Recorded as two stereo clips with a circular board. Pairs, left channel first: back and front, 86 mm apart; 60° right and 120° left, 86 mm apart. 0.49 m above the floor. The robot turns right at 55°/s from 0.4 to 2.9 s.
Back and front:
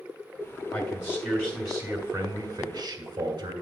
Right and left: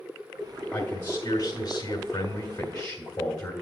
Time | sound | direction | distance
0.7 | a man speaking | 145° right | 1.9 m